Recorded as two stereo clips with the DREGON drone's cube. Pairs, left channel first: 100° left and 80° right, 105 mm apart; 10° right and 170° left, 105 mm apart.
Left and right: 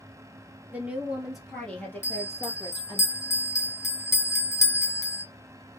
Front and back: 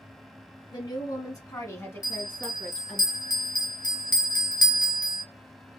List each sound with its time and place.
0.7 s a woman speaking: 15° right, 1.3 m; by 3.0 s 70° left, 1.5 m
2.0 s a bell: 35° left, 0.8 m